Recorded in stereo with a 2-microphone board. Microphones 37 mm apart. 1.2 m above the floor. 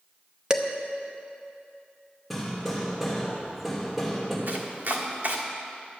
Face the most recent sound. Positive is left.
turn(degrees=-60)  # may be behind; listen again after turning